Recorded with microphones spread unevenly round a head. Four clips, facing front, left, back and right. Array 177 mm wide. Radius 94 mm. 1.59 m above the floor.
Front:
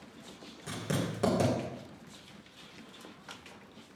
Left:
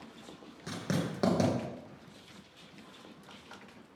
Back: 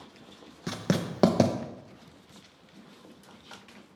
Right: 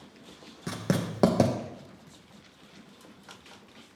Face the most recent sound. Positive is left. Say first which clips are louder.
# right 4 dB, back 5 dB
turn(degrees=-145)